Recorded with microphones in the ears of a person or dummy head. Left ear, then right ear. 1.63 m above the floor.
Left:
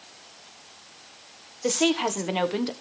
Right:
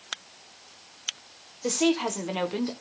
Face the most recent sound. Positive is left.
turn(degrees=10)  # may be behind; listen again after turning